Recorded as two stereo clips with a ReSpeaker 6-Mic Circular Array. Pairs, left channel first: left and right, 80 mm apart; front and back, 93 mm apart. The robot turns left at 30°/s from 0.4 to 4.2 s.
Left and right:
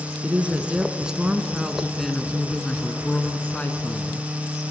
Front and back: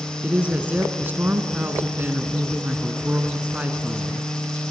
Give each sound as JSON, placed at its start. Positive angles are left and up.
{"t": 0.2, "sound": "a woman speaking", "azimuth_deg": -135, "distance_m": 1.2}